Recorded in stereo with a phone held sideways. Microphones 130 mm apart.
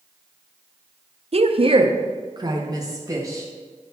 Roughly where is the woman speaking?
Right.